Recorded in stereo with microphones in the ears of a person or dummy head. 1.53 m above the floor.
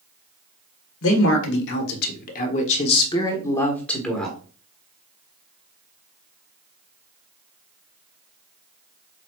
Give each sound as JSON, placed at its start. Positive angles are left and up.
{"t": 1.0, "sound": "a man speaking", "side_deg": 80, "distance_m": 1.4}